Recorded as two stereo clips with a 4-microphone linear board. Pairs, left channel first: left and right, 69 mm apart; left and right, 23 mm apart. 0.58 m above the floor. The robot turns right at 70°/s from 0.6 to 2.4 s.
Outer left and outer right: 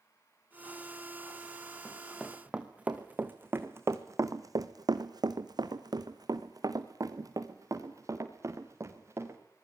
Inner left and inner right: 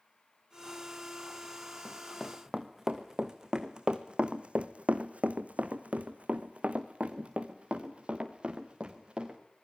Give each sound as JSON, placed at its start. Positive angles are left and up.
{"t": 1.9, "sound": "running footsteps", "side_deg": 30, "distance_m": 3.5}